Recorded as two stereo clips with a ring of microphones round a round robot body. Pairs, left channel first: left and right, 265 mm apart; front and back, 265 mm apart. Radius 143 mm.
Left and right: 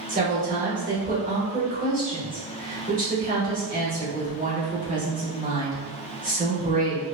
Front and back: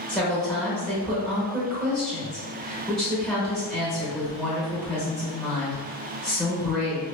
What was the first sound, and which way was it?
A woman speaking, 85° right.